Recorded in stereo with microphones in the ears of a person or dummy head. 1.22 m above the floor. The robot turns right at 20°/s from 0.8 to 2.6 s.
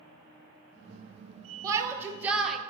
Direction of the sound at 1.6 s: 25° right (ahead or behind).